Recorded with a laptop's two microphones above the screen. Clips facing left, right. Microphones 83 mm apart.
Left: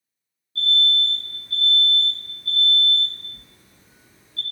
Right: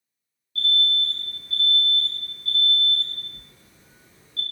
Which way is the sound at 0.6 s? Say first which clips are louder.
Left 2 dB; 30° left (ahead or behind).